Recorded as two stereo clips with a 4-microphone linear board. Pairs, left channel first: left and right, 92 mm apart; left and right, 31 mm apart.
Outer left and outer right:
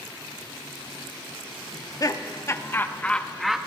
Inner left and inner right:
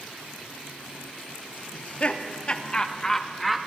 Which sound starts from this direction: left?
Laughter, at 1.7 s.